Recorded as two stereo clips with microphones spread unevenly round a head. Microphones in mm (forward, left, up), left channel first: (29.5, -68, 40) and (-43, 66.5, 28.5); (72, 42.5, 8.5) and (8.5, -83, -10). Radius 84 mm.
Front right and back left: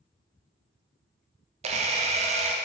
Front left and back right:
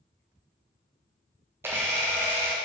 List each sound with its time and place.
1.6 s a camera shutter: 165° left, 0.6 m